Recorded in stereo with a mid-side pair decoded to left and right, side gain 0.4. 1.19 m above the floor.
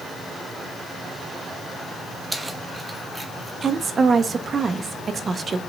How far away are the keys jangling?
About 1.4 m.